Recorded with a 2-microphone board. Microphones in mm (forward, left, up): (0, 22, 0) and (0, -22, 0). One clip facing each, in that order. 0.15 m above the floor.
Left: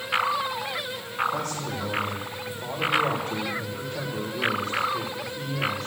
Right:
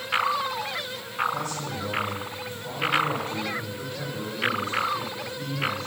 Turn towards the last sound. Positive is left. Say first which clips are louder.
# left 1 dB
turn(degrees=60)  # may be behind; listen again after turning